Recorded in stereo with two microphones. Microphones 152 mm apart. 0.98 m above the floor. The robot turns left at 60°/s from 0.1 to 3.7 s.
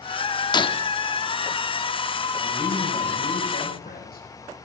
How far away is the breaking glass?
About 0.8 m.